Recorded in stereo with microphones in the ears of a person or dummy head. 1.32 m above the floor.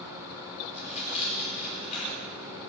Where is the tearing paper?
50° left (ahead or behind), 1.5 m.